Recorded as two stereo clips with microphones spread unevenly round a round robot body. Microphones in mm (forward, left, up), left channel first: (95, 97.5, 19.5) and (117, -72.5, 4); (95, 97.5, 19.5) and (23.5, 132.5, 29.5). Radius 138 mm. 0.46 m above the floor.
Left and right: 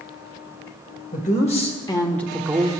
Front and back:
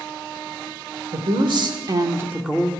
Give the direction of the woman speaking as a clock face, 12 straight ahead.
7 o'clock.